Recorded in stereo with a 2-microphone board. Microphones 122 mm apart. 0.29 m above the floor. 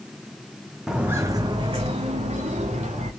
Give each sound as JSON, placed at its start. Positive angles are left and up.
{"t": 0.9, "sound": "footsteps", "side_deg": -5, "distance_m": 0.7}